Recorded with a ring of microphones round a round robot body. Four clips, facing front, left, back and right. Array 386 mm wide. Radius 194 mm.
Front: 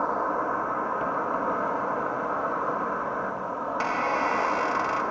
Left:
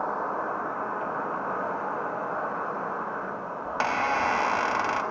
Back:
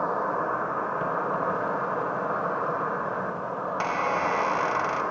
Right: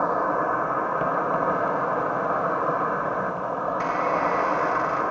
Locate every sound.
0.0 s an insect: 95° right, 0.7 m
3.6 s a squeak: 95° left, 0.7 m